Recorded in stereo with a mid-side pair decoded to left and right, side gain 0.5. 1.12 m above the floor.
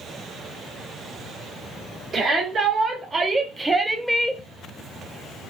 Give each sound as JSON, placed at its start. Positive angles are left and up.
{"t": 2.1, "sound": "a shout", "azimuth_deg": -45, "distance_m": 1.6}